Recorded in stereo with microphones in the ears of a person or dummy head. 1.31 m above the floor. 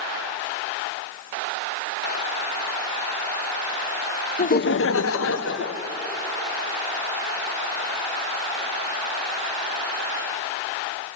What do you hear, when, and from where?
4.4 s laughter: 30° left (ahead or behind), 0.5 m; by 5.9 s 65° left (ahead or behind), 1.4 m